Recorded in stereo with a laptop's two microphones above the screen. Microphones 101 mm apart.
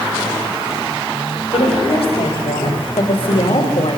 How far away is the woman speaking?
About 5 m.